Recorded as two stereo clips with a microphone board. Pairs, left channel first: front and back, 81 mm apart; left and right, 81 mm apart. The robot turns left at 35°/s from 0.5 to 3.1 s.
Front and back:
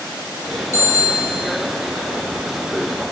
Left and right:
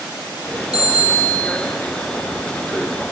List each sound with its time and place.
0.7 s a bicycle bell: 50° left, 9.5 m; by 1.6 s 20° left, 9.5 m